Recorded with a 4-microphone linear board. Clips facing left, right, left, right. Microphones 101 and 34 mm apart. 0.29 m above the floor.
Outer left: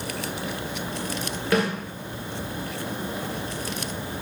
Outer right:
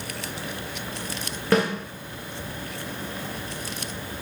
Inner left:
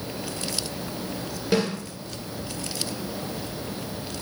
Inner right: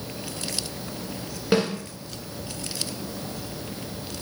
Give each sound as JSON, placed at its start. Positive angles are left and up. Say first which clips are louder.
{"t": 1.5, "sound": "a snare drum", "louder": "outer right 2 dB, inner right 1 dB", "side_deg": -35, "distance_m": 1.7}